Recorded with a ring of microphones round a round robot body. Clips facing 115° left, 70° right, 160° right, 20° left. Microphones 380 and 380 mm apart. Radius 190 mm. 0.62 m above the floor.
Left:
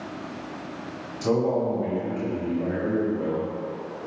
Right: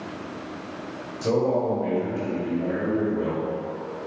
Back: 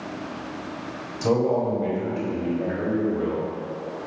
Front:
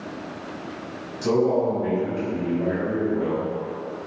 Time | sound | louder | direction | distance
1.2 | a man speaking | even, front 1 dB | 175° right | 1.7 m